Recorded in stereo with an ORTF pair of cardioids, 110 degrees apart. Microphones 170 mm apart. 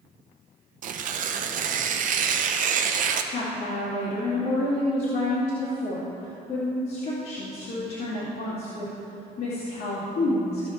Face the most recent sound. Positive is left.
turn(degrees=65)